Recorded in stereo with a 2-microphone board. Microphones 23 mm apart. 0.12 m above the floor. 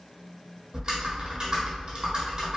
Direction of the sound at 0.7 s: 45° right (ahead or behind).